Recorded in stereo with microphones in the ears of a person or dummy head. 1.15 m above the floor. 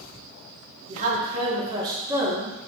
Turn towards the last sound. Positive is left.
turn(degrees=5)  # may be behind; listen again after turning